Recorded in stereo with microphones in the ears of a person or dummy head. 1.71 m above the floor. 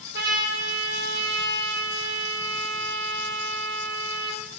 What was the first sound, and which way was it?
A trumpet, 75° right (ahead or behind).